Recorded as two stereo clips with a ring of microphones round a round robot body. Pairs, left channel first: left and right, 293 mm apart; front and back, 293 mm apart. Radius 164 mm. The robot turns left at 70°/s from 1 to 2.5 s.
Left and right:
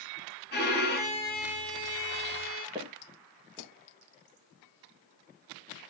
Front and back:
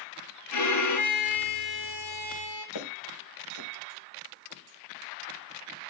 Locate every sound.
0.5 s a violin: 30° left, 3 m; by 2.6 s 75° right, 3 m
2.8 s footsteps: 10° right, 4 m